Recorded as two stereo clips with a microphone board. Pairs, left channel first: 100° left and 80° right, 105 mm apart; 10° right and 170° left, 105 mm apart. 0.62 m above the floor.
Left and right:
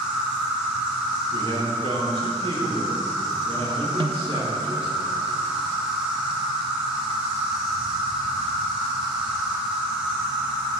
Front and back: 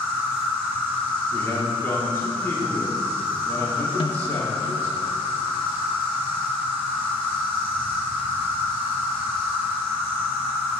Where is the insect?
150° right, 1.6 m.